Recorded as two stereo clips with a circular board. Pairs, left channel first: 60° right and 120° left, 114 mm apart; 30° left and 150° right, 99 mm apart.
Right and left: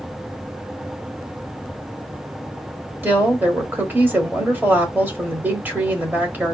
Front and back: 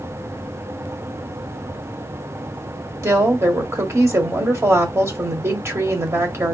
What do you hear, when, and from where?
3.0 s a woman speaking: straight behind, 1.3 m